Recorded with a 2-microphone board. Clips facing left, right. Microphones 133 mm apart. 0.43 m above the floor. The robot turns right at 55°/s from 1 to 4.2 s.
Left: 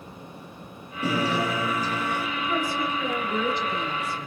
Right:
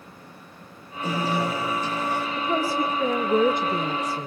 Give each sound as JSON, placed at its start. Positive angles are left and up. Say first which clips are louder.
{"t": 1.0, "sound": "a guitar", "louder": "even", "azimuth_deg": 95, "distance_m": 8.5}
{"t": 2.4, "sound": "a woman speaking", "louder": "right 4 dB", "azimuth_deg": -150, "distance_m": 1.2}